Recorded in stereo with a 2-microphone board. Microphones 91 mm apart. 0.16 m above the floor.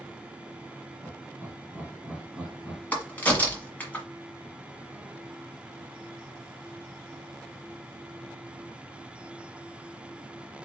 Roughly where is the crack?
Centre.